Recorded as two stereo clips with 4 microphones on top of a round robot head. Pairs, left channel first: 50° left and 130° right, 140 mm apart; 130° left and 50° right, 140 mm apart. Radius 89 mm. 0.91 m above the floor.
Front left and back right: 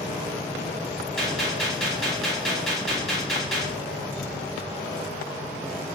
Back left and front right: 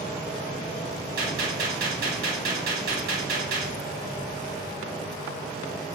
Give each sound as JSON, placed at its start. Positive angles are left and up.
{"t": 1.2, "sound": "a gunshot", "azimuth_deg": -40, "distance_m": 1.4}